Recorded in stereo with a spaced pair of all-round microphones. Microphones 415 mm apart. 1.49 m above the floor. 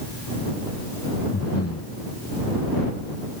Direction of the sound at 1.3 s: 35° left (ahead or behind).